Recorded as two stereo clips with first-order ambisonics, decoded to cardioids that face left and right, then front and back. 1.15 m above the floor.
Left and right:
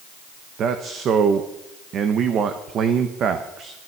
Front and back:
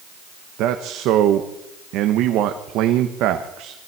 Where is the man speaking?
145° right, 1.1 m.